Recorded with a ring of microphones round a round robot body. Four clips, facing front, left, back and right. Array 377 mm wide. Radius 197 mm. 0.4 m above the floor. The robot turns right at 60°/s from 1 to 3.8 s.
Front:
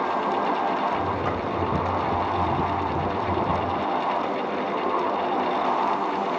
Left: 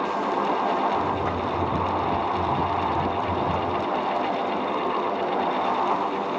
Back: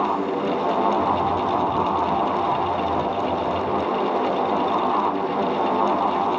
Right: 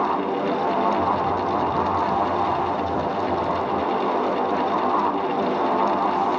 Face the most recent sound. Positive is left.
No sound to turn to.